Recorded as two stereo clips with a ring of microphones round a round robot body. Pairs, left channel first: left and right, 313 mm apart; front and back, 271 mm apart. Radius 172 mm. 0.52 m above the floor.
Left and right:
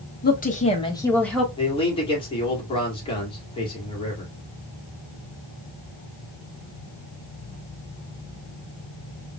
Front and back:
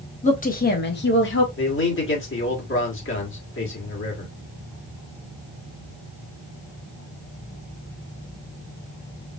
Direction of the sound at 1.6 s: 20° left.